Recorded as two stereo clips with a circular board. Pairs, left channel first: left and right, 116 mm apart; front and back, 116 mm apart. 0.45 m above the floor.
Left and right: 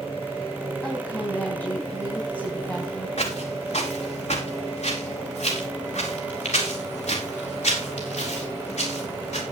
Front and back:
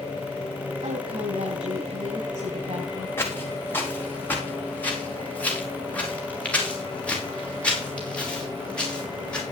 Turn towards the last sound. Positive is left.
turn(degrees=80)